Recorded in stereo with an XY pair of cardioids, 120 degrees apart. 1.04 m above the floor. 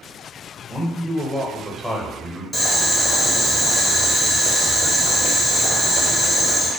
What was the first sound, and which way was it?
A man speaking, straight ahead.